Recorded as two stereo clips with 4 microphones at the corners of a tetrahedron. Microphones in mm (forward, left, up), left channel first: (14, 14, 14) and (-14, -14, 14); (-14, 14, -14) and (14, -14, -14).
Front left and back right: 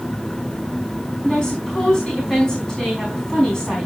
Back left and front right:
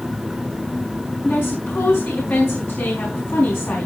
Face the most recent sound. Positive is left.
turn(degrees=115)